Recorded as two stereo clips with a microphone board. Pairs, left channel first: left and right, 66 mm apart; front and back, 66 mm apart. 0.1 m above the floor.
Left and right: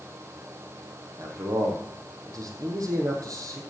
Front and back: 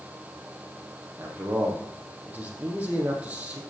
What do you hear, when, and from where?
1.2 s a man speaking: 115° right, 3 m